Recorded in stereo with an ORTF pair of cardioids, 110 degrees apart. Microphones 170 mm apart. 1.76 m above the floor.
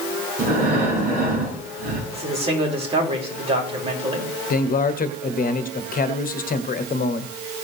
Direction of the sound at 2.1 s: 35° right.